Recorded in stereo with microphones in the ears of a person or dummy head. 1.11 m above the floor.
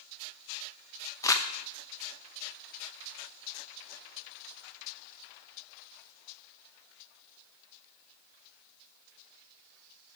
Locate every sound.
1.2 s crumpling: 15° left (ahead or behind), 0.7 m